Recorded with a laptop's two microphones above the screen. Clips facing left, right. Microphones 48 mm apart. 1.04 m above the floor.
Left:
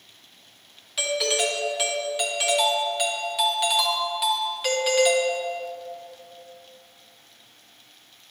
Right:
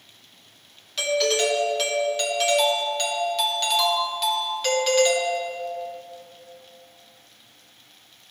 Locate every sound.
1.0 s a doorbell: 10° left (ahead or behind), 1.1 m